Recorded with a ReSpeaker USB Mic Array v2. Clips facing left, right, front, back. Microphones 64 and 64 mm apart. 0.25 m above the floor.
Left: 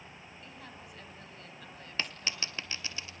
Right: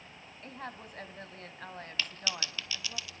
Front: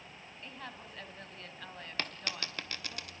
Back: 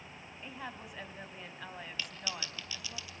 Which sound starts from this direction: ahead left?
A dropped coin, at 2.0 s.